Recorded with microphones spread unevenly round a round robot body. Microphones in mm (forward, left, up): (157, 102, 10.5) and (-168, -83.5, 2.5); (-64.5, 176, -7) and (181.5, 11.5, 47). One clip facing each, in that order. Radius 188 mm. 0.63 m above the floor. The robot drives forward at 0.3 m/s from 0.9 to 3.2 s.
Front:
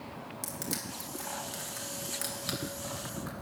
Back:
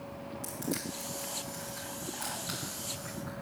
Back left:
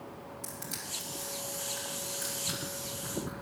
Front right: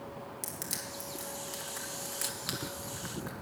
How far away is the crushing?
About 3 m.